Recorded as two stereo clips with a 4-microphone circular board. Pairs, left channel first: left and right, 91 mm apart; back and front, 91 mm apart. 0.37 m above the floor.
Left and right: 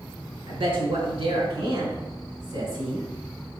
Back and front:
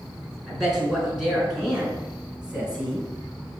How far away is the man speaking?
About 4 m.